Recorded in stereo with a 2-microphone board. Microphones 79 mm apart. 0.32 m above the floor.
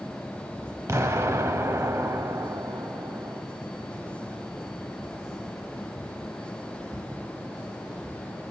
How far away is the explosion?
About 0.6 m.